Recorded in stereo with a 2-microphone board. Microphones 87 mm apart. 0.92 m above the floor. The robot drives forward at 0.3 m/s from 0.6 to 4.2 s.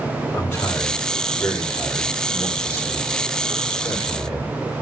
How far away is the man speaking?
About 2 m.